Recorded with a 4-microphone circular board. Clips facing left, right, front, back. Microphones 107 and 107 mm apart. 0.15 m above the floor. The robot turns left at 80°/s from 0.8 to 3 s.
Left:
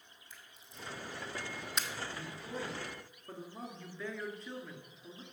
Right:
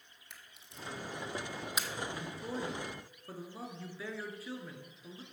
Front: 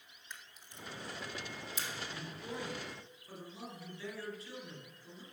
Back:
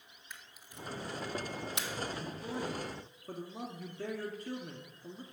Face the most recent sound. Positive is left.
turn(degrees=-170)